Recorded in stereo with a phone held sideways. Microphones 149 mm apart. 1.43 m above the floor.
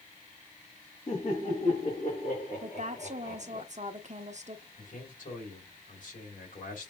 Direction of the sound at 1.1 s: 45° left (ahead or behind).